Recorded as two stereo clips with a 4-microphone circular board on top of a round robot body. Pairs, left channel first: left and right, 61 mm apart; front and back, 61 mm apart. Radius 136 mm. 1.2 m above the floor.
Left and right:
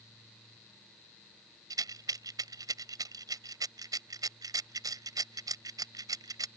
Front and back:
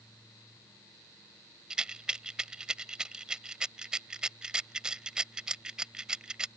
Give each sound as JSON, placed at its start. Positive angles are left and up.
{"t": 1.7, "sound": "a rattle", "azimuth_deg": -105}